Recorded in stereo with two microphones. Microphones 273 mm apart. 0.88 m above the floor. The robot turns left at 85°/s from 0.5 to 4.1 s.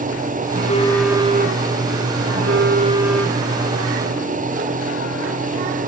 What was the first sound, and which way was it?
A phone buzzing, 40° left.